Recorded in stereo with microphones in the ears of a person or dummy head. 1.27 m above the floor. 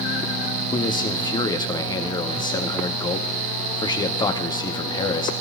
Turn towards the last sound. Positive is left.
turn(degrees=20)  # may be behind; listen again after turning